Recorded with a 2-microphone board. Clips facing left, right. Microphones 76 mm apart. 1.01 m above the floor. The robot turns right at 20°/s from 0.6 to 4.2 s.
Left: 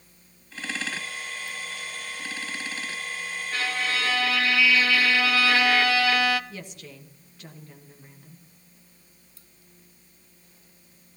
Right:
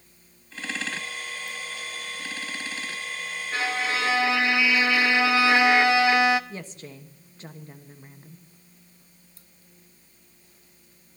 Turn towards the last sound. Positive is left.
turn(degrees=-35)  # may be behind; listen again after turning